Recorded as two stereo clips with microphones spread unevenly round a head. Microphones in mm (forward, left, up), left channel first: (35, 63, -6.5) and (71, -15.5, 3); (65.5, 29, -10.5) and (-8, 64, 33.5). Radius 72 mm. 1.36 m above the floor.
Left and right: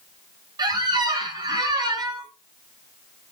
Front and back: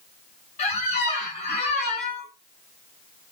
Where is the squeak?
55° right, 0.7 m.